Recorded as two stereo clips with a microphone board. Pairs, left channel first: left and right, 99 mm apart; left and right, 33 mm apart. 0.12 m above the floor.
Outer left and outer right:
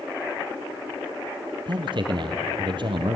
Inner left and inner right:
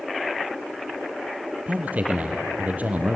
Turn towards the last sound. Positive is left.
turn(degrees=-55)  # may be behind; listen again after turning